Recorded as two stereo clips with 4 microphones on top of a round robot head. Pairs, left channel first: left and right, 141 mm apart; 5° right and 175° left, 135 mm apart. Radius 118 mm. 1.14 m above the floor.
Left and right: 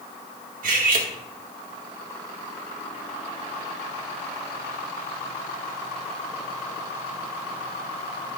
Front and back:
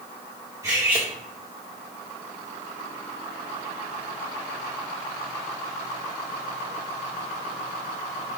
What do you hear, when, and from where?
0.6 s cutlery clinking: 110° right, 2.0 m